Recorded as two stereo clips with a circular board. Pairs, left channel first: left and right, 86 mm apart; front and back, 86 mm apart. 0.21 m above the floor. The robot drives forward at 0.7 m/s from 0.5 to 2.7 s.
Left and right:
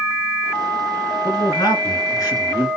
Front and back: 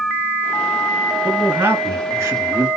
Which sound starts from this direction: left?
A man speaking, at 1.2 s.